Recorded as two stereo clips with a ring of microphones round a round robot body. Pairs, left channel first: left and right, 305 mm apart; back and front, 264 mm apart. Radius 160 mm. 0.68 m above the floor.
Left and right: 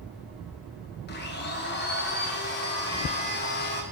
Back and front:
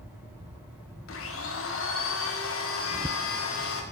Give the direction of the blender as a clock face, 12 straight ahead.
7 o'clock.